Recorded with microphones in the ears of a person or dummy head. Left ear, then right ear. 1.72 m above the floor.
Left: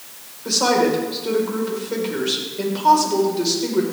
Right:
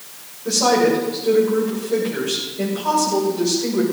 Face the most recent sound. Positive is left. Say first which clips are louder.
# right 1 dB
turn(degrees=60)  # may be behind; listen again after turning